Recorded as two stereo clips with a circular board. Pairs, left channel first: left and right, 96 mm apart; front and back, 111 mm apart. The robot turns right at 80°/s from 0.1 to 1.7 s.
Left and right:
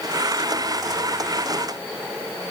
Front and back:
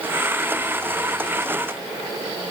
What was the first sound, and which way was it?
Only background noise.